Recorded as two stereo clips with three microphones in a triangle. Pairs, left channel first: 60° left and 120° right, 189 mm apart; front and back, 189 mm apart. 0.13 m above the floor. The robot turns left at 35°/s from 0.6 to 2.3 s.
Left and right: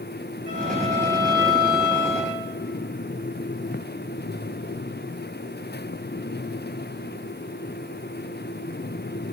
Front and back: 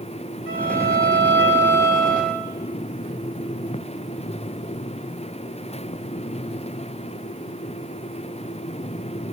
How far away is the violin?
About 3.5 m.